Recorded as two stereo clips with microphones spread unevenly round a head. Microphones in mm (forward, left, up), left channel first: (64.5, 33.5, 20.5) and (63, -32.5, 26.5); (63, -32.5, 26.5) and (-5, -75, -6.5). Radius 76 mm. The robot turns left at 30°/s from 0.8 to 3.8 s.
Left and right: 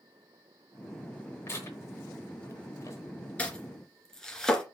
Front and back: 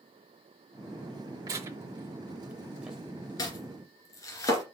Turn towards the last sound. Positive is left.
turn(degrees=5)